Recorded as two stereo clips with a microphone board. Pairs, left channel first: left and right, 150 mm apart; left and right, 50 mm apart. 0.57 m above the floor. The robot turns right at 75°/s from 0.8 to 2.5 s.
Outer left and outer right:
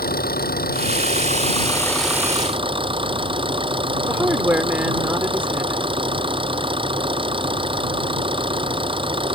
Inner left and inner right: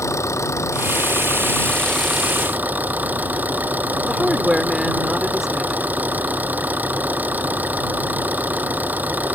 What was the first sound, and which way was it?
An engine running, 90° left.